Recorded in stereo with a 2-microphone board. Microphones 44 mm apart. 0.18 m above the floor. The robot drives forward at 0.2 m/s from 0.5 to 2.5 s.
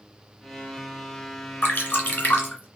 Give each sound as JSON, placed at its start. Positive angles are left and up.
{"t": 1.6, "sound": "dripping", "side_deg": 50, "distance_m": 2.5}